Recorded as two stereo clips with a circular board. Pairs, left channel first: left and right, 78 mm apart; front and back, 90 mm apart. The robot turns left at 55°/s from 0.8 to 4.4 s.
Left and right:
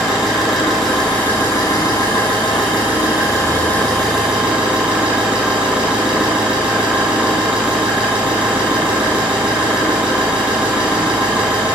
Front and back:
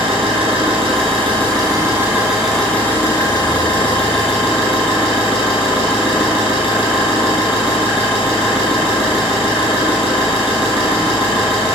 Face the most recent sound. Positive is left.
turn(degrees=-15)